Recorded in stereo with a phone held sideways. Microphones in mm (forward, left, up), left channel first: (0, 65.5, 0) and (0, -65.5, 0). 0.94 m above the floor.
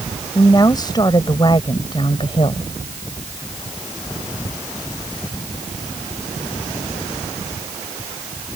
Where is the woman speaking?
30° left (ahead or behind); by 2.7 s 45° left (ahead or behind).